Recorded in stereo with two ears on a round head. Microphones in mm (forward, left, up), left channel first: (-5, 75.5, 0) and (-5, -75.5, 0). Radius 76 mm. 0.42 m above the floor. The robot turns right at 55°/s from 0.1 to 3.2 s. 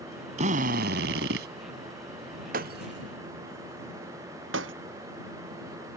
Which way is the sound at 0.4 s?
135° right.